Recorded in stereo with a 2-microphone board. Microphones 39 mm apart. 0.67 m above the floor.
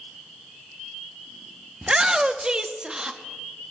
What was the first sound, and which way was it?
A shout, 20° right (ahead or behind).